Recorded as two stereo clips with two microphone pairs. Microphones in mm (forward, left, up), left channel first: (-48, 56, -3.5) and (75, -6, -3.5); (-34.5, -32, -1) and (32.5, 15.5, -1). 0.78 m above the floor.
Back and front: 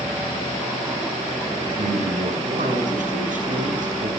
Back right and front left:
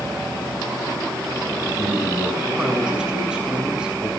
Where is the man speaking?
45° right, 8.5 m.